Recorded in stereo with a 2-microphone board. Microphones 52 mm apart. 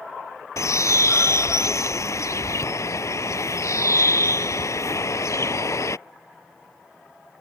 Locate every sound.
0.6 s a bird: 80° left